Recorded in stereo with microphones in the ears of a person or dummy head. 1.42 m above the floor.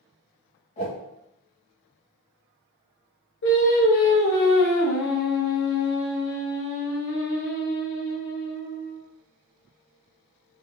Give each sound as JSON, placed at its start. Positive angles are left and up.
{"t": 0.8, "sound": "a whoosh", "side_deg": 35, "distance_m": 1.2}
{"t": 3.4, "sound": "singing", "side_deg": 65, "distance_m": 1.2}